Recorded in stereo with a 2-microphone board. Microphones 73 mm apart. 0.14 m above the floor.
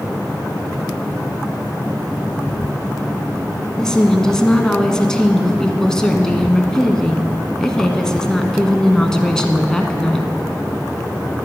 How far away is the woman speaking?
About 1.1 m.